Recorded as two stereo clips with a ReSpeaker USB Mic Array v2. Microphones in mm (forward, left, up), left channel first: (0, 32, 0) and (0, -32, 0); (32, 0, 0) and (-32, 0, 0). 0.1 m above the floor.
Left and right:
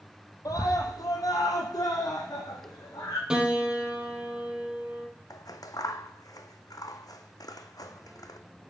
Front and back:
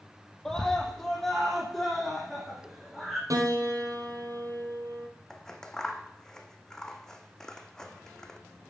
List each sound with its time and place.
0.5 s a scream: 80° left, 3 m; by 3.2 s 90° left, 5.5 m
3.3 s a piano: 165° right, 2.5 m
5.3 s scissors: 80° left, 1.3 m